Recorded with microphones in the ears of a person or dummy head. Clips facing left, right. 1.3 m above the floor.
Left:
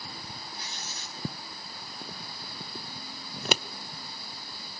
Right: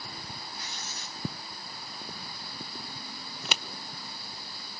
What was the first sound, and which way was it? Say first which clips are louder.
Writing: even; 30° left (ahead or behind).